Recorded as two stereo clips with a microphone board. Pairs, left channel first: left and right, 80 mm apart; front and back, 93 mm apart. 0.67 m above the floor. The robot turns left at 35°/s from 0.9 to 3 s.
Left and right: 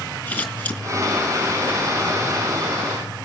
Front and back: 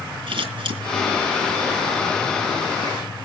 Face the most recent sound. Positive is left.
turn(degrees=90)